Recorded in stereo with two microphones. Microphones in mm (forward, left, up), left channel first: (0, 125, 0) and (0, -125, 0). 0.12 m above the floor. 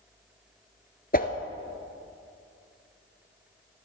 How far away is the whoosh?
About 1.1 m.